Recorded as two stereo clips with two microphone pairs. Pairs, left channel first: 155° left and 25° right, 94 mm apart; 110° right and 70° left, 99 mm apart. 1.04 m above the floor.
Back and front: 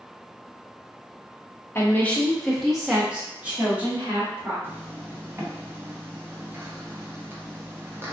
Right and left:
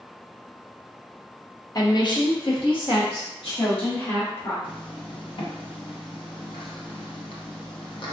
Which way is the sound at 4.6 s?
85° right.